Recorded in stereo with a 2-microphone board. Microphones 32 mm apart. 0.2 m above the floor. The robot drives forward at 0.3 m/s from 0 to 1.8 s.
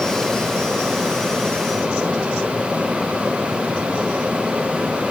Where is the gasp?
I don't hear a gasp.